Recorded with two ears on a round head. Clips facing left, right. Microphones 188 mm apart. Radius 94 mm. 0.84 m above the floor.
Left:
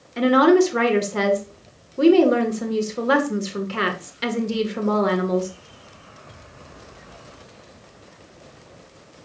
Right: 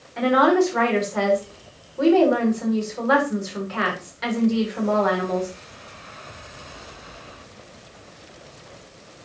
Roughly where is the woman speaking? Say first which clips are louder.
Left 3 dB; left.